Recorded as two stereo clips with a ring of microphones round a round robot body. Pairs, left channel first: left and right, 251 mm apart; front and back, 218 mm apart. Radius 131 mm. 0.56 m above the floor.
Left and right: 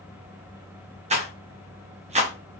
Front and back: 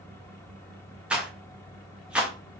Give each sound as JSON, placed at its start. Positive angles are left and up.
{"t": 1.1, "sound": "a rattle", "azimuth_deg": -100, "distance_m": 0.6}